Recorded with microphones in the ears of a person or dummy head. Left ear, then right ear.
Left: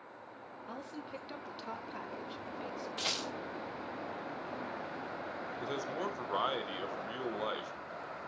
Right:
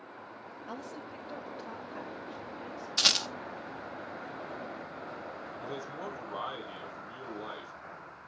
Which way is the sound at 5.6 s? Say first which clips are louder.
Left 3 dB; 70° left (ahead or behind).